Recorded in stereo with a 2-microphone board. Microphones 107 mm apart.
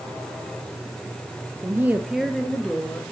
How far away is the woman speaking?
About 0.8 m.